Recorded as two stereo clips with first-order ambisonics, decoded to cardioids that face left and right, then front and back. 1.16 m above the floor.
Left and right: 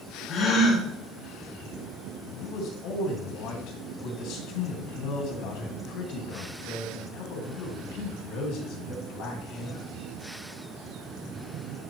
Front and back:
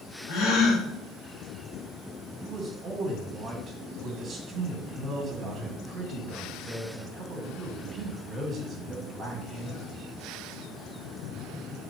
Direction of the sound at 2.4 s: 115° left.